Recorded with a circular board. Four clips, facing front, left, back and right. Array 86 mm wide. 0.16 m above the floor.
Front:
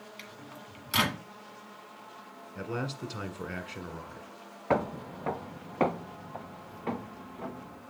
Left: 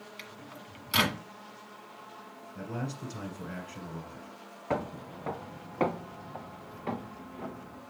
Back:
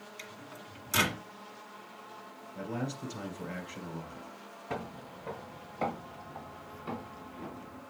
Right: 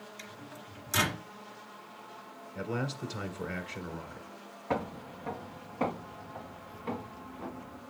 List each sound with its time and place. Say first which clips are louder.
0.2 s a microwave: even, front 1 dB; 55° left, 1.4 m
2.5 s a man speaking: right 3 dB, front 1 dB; 30° right, 1.4 m
4.7 s footsteps: left 1 dB, front 11 dB; 5° left, 0.6 m; by 7.8 s 35° left, 3 m